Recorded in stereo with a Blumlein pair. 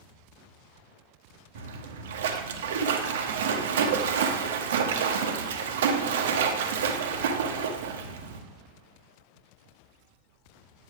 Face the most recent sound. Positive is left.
turn(degrees=-60)